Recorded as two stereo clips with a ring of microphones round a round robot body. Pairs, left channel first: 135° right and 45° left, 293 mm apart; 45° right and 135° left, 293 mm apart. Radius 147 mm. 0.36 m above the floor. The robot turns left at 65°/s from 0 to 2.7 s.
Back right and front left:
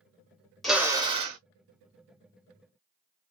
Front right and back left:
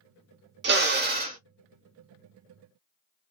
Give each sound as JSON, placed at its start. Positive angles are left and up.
{"t": 0.6, "sound": "a drill", "azimuth_deg": 135, "distance_m": 1.0}